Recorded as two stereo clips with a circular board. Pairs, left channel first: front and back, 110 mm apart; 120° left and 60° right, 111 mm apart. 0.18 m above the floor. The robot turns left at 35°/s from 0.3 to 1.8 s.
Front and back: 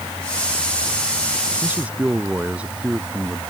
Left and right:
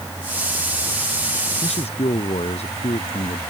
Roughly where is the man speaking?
Left.